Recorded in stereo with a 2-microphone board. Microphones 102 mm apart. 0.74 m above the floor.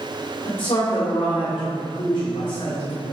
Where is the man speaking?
70° left (ahead or behind), 2.5 m.